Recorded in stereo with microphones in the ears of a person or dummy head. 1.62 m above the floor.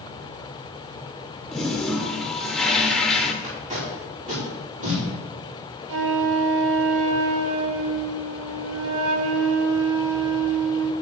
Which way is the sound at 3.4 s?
35° right (ahead or behind).